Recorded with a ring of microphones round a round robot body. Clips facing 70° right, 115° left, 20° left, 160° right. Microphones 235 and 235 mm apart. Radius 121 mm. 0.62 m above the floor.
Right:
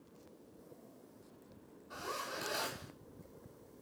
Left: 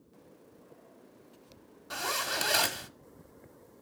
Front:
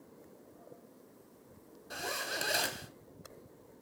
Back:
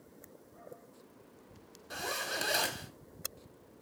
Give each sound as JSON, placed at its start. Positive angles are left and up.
{"t": 1.9, "sound": "a zipper", "azimuth_deg": 110, "distance_m": 0.7}